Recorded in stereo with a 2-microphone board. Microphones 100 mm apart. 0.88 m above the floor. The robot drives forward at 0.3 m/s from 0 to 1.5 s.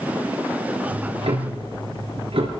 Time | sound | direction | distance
0.9 | ticking | 75° right (ahead or behind) | 4.5 m